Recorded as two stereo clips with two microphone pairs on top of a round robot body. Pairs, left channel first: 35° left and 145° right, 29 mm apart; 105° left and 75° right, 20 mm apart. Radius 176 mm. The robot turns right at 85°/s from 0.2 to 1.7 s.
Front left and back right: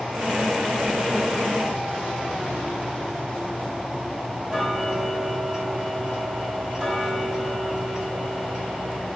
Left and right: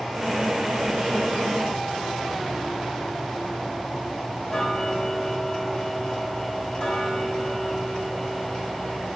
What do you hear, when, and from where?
4.5 s ticking: 155° left, 4 m